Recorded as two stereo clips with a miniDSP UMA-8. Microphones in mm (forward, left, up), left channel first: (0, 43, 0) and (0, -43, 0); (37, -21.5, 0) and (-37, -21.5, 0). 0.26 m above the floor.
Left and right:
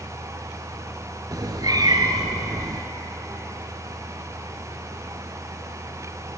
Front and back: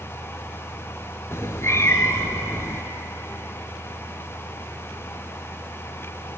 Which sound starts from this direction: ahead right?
A cat meowing, at 1.3 s.